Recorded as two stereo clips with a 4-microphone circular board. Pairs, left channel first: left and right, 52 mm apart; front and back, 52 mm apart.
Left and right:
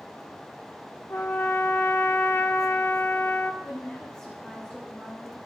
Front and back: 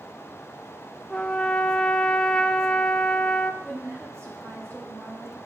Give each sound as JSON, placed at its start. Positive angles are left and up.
{"t": 1.1, "sound": "a trumpet", "azimuth_deg": 70, "distance_m": 0.8}
{"t": 3.6, "sound": "a woman speaking", "azimuth_deg": 165, "distance_m": 6.0}